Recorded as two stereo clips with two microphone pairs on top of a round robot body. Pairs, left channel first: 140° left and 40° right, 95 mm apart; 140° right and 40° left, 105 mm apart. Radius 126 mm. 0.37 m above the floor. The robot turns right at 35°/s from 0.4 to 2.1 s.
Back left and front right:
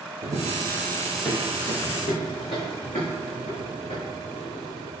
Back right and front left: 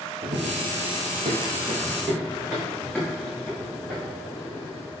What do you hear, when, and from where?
0.2 s running footsteps: 10° left, 0.6 m; by 4.9 s 140° left, 2.5 m